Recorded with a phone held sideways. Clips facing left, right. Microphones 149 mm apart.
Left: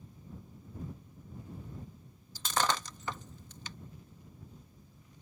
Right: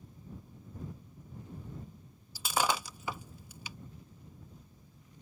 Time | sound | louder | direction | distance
2.4 | breaking glass | right 1 dB | 10° right (ahead or behind) | ?